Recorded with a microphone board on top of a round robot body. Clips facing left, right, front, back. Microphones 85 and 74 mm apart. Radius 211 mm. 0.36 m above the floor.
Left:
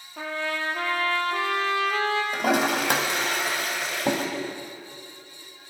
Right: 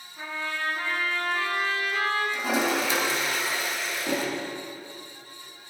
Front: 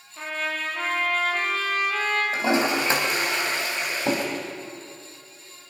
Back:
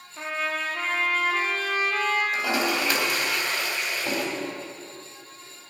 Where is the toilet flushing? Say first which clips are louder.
Left 3 dB, front 3 dB; 65° left, 3.5 m.